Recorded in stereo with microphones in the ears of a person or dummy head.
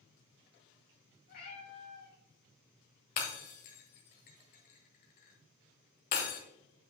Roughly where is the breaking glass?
Left.